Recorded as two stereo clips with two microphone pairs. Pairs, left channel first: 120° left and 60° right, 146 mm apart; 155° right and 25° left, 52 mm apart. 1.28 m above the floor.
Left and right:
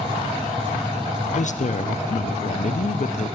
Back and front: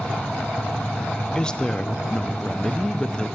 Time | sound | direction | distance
1.4 | a woman speaking | 140° left | 0.5 m